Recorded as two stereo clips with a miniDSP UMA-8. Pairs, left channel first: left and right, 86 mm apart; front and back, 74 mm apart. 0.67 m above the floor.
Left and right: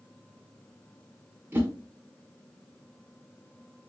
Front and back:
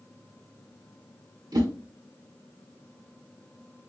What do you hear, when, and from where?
1.5 s a whoosh: 155° right, 1.0 m